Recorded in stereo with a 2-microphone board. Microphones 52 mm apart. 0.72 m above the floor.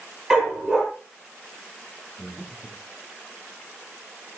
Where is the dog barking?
Centre (ahead or behind), 8.5 m.